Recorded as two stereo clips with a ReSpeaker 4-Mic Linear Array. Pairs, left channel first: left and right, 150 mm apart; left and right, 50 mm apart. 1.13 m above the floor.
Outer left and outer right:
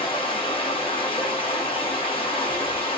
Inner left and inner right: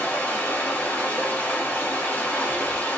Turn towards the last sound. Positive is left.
turn(degrees=35)  # may be behind; listen again after turning